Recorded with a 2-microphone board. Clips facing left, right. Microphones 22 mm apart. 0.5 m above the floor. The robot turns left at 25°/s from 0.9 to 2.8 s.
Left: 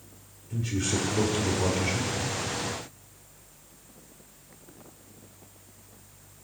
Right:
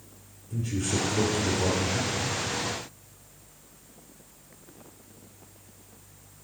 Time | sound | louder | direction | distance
0.5 | a man speaking | even | 95° left | 1.1 m